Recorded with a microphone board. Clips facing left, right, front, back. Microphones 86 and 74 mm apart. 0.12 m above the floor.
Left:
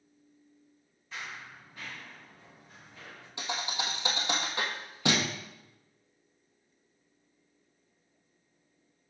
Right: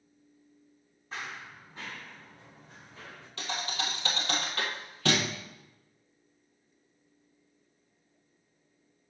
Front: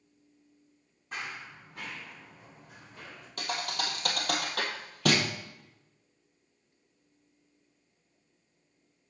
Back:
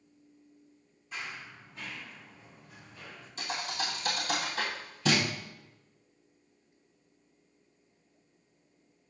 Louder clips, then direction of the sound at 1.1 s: Right 2 dB, front 2 dB; 35° right.